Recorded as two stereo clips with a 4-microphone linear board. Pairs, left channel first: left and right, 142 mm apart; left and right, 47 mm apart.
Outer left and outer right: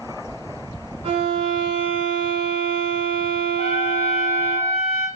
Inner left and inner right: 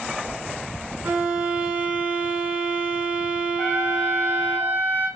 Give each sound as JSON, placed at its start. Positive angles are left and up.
{"t": 1.0, "sound": "a violin", "side_deg": -45, "distance_m": 1.3}
{"t": 3.6, "sound": "a trumpet", "side_deg": 45, "distance_m": 0.6}